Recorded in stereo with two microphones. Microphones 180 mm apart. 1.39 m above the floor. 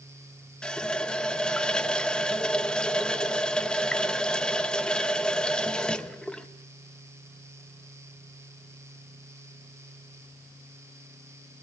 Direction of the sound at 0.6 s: 5° left (ahead or behind).